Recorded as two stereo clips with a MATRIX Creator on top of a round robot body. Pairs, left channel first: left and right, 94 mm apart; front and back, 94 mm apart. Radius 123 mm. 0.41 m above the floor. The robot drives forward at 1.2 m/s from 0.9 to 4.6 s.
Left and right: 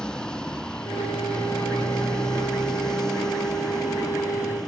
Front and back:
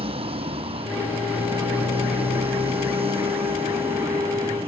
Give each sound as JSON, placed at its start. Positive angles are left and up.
{"t": 0.0, "sound": "a motorcycle", "azimuth_deg": 170}